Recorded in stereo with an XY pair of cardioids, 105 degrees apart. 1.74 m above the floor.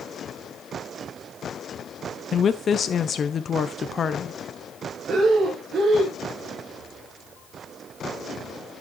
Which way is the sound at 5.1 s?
55° right.